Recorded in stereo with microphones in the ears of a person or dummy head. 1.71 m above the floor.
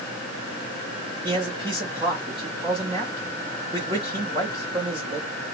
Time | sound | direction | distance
1.2 | a man speaking | 35° right (ahead or behind) | 3 m